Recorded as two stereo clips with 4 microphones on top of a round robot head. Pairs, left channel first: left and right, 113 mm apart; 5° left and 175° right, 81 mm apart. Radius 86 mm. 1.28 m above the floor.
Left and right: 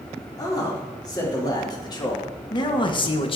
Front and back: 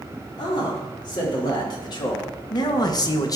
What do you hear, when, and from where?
0.4 s a man speaking: 30° left, 3.5 m; by 3.4 s 50° left, 1.2 m